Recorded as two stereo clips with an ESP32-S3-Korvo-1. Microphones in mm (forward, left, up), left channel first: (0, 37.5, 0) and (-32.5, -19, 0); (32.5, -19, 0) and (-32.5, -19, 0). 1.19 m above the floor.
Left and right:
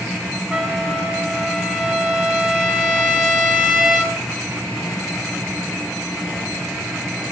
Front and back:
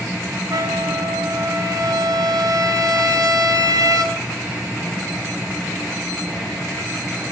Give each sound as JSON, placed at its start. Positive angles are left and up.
{"t": 0.5, "sound": "a trumpet", "azimuth_deg": 165, "distance_m": 3.5}